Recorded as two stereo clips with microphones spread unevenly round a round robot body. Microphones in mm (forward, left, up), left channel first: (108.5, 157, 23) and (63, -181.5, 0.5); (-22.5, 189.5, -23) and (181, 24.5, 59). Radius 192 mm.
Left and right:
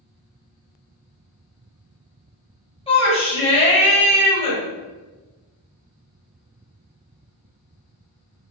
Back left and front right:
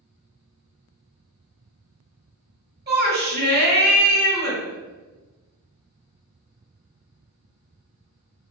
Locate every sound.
2.9 s a shout: 15° left, 1.2 m